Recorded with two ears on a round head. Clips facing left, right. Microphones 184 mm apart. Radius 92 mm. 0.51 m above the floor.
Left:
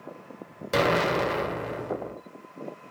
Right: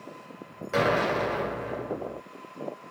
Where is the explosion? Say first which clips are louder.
Left 1 dB; 45° left (ahead or behind), 1.6 m.